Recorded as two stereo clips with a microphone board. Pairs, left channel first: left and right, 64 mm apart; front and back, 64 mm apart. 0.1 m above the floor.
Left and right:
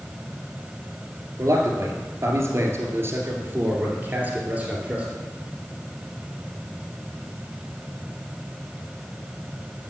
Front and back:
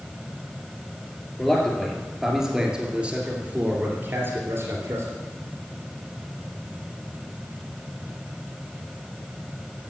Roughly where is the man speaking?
Right.